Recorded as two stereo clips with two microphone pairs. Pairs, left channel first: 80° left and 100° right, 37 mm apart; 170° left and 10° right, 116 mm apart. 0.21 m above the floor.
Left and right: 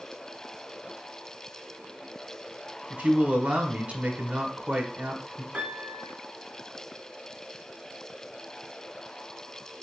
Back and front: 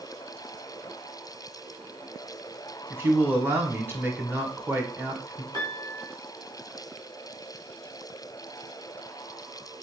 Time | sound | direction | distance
2.9 | a man speaking | 70° right | 1.4 m
5.5 | a piano | 45° right | 2.5 m